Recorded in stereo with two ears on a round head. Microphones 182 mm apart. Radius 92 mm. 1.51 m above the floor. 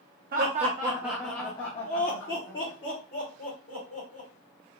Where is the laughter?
45° right (ahead or behind), 0.8 m; by 4.3 s 65° left (ahead or behind), 2 m.